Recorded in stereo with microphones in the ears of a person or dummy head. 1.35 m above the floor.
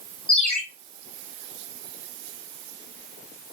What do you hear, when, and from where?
0.3 s a ringtone: 5° left (ahead or behind), 1.6 m